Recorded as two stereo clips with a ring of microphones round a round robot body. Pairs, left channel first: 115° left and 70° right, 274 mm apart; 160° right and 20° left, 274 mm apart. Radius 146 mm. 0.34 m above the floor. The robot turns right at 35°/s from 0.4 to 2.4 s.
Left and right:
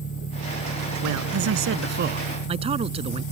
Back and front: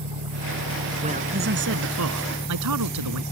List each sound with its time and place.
0.0 s an engine running: 60° left; by 3.3 s 130° left
1.0 s a man speaking: 45° right; by 3.2 s straight ahead